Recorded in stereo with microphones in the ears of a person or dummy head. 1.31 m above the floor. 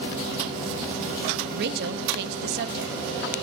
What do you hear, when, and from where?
1.5 s a woman speaking: 55° right (ahead or behind), 0.9 m